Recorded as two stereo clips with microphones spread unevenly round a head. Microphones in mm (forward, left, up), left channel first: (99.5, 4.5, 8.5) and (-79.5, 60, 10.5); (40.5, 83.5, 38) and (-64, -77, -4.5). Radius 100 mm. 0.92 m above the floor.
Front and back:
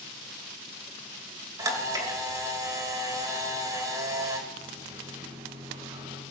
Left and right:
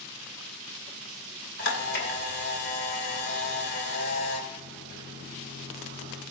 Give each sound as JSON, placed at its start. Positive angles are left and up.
{"t": 1.6, "sound": "a camera shutter", "azimuth_deg": 90, "distance_m": 3.0}
{"t": 4.5, "sound": "a microwave", "azimuth_deg": 100, "distance_m": 5.5}